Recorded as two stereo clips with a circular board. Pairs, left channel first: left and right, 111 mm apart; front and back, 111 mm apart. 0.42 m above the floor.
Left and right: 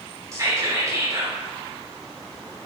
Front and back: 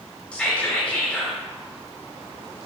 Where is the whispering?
70° right, 0.9 m.